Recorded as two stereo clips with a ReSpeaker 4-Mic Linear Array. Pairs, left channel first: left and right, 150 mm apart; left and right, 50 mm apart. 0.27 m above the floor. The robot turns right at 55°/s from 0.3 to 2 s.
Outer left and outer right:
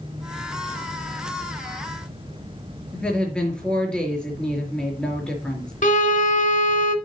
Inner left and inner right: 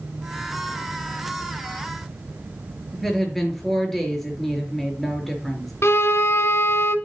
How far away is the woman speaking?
About 5 m.